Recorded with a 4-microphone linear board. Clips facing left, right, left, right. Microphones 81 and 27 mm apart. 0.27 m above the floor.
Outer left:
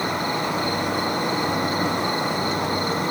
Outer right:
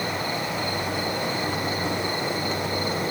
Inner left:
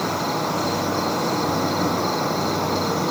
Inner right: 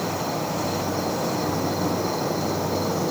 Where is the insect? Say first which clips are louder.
Outer left 4 dB, inner left 3 dB; 60° left (ahead or behind), 2.0 m.